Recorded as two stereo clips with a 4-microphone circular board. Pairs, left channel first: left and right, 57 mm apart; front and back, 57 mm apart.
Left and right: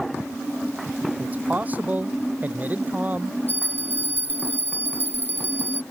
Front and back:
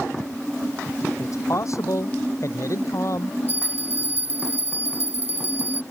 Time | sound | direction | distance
1.2 | a man speaking | 30° right | ?
3.5 | a bell | 40° left | ?